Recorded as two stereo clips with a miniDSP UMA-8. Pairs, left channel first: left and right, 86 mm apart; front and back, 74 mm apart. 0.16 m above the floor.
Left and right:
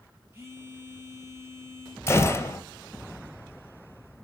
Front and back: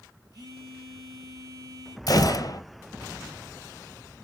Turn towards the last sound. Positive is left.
turn(degrees=30)